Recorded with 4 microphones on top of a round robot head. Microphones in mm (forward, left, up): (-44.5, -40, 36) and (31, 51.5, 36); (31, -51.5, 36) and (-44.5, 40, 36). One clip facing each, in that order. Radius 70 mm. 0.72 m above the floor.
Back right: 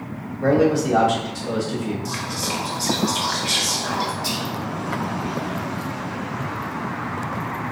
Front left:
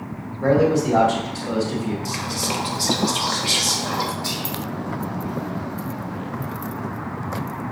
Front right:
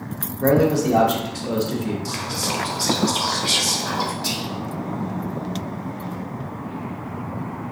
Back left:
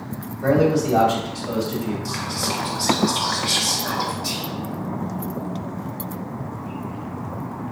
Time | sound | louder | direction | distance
0.4 | a man speaking | even, front right 1 dB | 50° right | 1.0 m
2.0 | whispering | front left 1 dB, even | 10° left | 0.6 m
4.2 | whispering | back right 2 dB, front right 1 dB | 50° right | 0.8 m